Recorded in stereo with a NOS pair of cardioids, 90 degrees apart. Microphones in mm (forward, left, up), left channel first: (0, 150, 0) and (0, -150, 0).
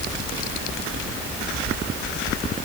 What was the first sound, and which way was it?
Only background noise.